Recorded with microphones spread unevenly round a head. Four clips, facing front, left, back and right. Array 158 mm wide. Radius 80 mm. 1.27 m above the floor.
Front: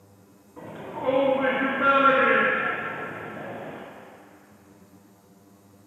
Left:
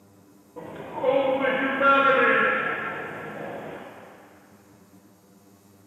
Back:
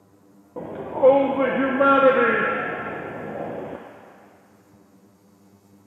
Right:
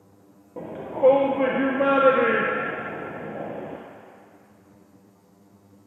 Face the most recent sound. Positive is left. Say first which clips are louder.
# right 7 dB, back 13 dB
turn(degrees=-155)